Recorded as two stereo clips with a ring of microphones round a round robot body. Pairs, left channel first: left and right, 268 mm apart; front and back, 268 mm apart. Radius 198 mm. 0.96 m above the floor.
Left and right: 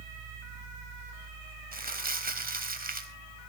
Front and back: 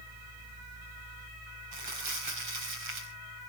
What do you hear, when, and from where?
1.7 s crumpling: 150° right, 3.5 m